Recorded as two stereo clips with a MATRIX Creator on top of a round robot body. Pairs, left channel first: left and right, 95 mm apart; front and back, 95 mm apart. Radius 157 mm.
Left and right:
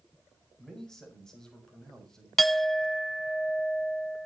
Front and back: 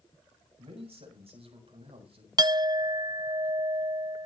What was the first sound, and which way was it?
A man speaking, 175° left.